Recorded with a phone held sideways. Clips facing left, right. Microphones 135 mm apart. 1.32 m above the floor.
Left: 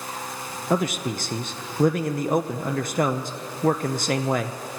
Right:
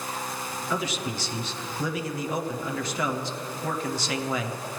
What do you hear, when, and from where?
0.7 s a man speaking: 50° left (ahead or behind), 0.7 m